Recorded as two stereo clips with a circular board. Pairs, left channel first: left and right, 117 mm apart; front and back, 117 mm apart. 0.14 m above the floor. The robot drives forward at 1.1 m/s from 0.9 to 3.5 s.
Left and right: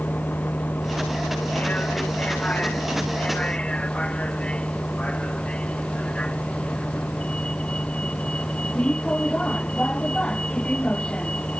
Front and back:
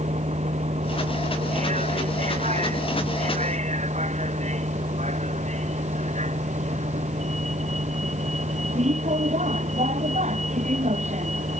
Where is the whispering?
I don't hear whispering.